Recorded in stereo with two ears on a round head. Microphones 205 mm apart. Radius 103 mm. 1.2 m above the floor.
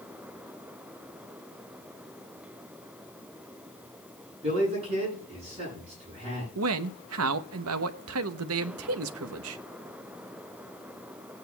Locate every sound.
4.4 s a man speaking: 30° right (ahead or behind), 9 m
6.5 s a man speaking: 65° right (ahead or behind), 0.8 m